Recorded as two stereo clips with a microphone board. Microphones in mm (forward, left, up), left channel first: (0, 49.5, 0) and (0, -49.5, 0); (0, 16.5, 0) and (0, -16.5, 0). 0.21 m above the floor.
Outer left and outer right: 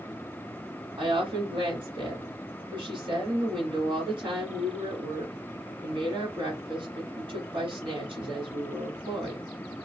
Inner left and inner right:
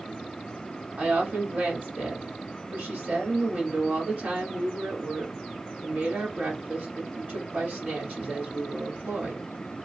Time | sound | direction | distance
1.0 | a woman speaking | 55° right (ahead or behind) | 1.6 m